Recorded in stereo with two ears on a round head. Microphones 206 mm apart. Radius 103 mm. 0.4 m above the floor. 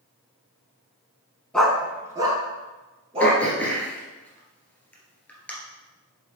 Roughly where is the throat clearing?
Centre.